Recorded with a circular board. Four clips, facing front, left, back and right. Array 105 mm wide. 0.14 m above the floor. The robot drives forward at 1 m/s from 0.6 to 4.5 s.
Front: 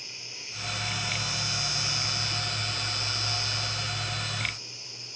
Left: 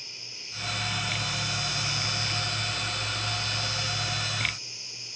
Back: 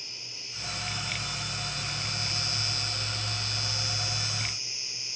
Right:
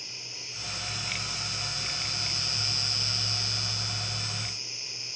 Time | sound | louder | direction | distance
0.0 | an insect | right 2 dB, front 2 dB | 25° right | 2.5 m